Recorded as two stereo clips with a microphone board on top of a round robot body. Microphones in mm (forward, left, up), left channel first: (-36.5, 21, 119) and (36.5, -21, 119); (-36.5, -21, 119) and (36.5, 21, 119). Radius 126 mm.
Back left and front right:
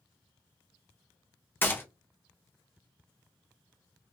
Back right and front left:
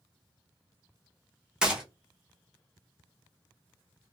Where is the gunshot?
105° left, 1.0 m.